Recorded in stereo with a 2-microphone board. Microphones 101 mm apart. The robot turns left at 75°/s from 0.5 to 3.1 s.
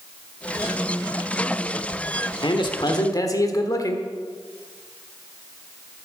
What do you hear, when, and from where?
2.4 s a man speaking: 100° left, 1.3 m; by 4.1 s 50° left, 1.3 m